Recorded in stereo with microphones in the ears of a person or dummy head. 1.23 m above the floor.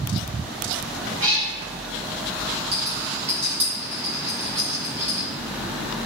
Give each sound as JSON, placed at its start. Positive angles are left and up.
{"t": 1.2, "sound": "a cat meowing", "side_deg": -40, "distance_m": 1.3}
{"t": 2.7, "sound": "a rattle", "side_deg": -15, "distance_m": 0.9}